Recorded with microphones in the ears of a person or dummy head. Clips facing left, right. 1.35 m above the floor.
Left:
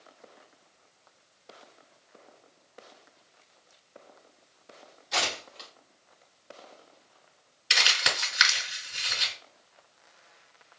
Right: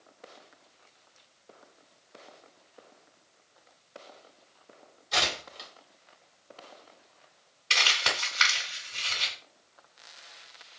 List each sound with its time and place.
5.1 s tearing paper: centre (ahead or behind), 1.7 m
7.7 s crumpling: 30° left (ahead or behind), 2.5 m